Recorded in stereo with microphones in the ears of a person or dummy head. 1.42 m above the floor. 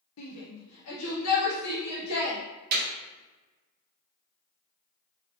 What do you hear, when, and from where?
0.2 s a shout: 80° left, 1.4 m
2.7 s a clap: 45° right (ahead or behind), 1.8 m